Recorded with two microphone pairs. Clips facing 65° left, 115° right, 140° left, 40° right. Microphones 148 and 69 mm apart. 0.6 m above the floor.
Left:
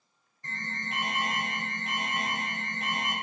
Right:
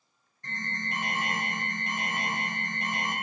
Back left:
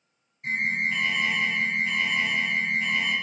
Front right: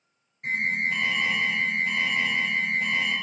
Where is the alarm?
20° right, 3.5 m.